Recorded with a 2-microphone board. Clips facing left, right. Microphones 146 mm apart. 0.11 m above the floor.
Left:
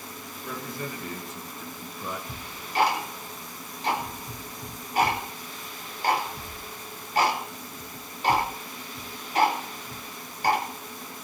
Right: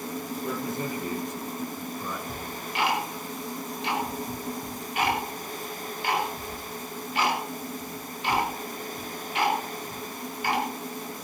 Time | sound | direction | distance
0.4 | a man speaking | 30° right (ahead or behind) | 3 m
2.3 | ticking | 40° left (ahead or behind) | 5 m